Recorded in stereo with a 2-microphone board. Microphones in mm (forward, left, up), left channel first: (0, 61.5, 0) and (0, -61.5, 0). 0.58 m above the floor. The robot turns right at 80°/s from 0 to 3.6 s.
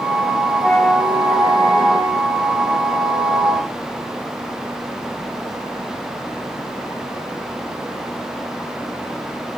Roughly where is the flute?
Behind.